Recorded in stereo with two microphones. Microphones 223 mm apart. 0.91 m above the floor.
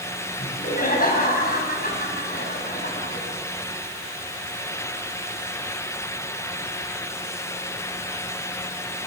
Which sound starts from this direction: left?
Laughter, at 0.4 s.